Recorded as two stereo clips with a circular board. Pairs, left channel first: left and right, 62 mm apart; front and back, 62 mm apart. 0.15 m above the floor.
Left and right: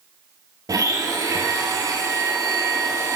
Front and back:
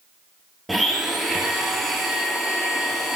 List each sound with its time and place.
0.7 s a blender: 90° right, 0.8 m